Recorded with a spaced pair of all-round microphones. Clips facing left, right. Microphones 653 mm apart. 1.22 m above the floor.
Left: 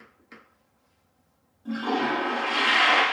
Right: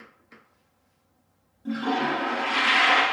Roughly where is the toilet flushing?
Right.